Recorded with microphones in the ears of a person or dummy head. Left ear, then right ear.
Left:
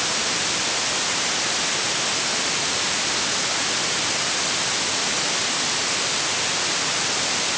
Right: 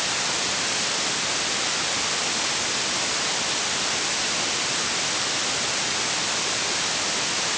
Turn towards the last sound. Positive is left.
No sound to turn to.